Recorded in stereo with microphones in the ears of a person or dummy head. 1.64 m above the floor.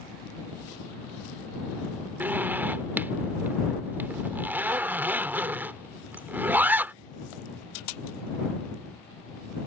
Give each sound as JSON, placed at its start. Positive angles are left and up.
{"t": 2.2, "sound": "a zipper", "side_deg": -10}